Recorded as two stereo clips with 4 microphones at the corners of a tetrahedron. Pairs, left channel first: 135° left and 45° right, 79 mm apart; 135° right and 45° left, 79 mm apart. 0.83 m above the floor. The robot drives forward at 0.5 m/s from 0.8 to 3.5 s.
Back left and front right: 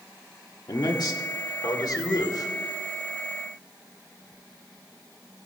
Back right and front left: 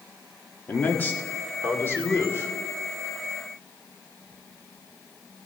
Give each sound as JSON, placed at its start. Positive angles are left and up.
{"t": 0.7, "sound": "a man speaking", "azimuth_deg": 160, "distance_m": 1.4}